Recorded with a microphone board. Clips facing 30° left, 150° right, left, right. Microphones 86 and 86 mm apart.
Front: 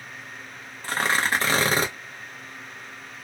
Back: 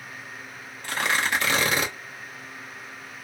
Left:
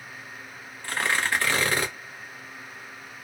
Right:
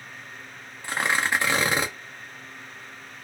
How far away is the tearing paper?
About 0.9 m.